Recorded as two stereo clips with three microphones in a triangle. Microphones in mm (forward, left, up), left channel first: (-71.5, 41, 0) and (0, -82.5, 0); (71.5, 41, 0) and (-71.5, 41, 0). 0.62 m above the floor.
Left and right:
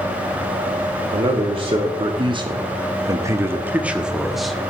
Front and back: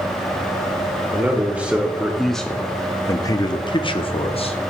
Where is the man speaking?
105° right, 1.4 m; by 4.6 s 30° left, 1.1 m.